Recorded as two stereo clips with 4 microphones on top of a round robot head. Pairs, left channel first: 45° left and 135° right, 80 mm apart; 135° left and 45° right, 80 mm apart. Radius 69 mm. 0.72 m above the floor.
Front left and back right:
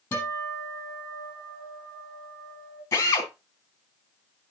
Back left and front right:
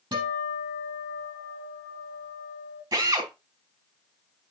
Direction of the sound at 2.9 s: 10° right.